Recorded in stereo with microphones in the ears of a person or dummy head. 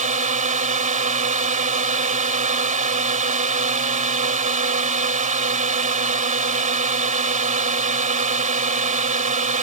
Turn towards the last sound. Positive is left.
turn(degrees=-40)  # may be behind; listen again after turning